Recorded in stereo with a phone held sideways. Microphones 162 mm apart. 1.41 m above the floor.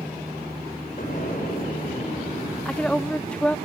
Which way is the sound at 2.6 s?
5° left (ahead or behind).